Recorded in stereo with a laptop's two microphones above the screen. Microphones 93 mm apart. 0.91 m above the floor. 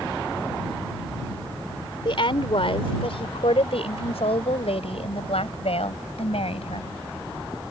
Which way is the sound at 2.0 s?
60° left (ahead or behind).